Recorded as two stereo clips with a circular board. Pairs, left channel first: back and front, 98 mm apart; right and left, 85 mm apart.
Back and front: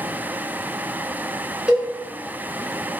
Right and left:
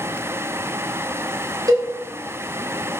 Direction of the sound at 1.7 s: 75° left.